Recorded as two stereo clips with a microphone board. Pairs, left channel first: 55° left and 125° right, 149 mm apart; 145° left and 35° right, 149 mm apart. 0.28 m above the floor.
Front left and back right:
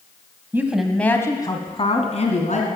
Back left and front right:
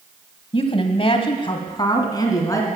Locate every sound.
0.5 s a woman speaking: 170° left, 1.3 m; by 2.7 s 80° left, 2.5 m